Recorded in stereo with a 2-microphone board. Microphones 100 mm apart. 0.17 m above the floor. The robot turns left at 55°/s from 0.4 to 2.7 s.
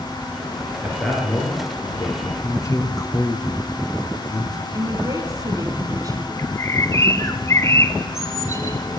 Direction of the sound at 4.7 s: 40° right (ahead or behind).